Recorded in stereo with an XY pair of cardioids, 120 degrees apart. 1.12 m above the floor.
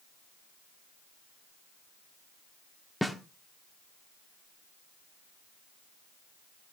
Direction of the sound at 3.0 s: 5° left.